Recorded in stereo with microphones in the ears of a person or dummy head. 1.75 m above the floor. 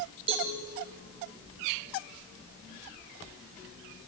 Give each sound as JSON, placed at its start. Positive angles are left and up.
{"t": 0.3, "sound": "a cowbell", "side_deg": -30, "distance_m": 7.0}